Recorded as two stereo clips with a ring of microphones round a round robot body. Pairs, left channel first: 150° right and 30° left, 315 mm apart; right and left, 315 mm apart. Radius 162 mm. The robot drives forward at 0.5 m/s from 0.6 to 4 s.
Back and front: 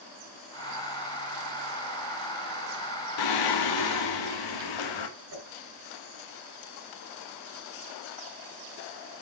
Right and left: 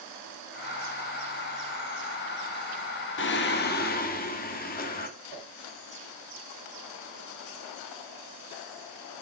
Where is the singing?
145° right, 1.2 m; by 5.1 s 155° right, 1.6 m.